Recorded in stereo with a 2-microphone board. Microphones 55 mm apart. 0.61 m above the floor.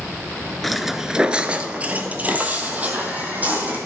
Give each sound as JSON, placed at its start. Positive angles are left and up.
{"t": 0.6, "sound": "footsteps", "side_deg": 5, "distance_m": 0.6}